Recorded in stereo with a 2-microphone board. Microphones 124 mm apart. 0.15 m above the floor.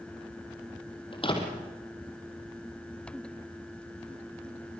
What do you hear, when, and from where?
1.1 s a door slam: 45° left (ahead or behind), 3.5 m